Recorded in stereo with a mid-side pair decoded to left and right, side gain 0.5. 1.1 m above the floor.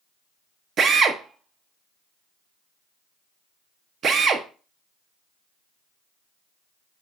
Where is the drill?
50° right, 0.6 m.